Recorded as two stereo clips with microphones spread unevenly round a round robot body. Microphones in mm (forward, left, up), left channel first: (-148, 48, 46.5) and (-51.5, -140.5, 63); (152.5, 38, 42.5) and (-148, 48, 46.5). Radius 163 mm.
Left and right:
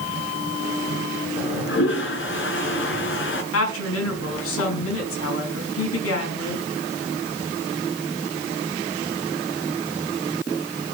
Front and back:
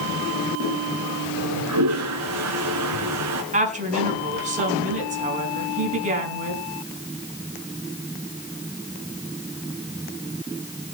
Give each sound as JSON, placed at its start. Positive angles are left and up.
{"t": 1.4, "sound": "a toilet flushing", "azimuth_deg": 140, "distance_m": 3.0}
{"t": 3.5, "sound": "a woman speaking", "azimuth_deg": 110, "distance_m": 5.5}